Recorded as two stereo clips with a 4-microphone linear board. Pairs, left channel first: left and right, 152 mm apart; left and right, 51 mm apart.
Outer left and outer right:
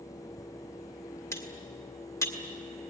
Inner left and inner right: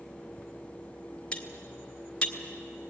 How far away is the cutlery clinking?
About 1.9 m.